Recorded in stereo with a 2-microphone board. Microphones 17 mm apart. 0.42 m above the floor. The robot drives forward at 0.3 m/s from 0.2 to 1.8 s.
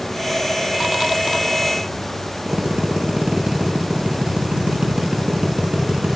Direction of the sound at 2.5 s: 75° right (ahead or behind).